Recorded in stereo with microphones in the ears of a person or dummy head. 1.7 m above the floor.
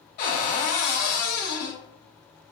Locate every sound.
0.2 s a cupboard door: 45° left (ahead or behind), 0.9 m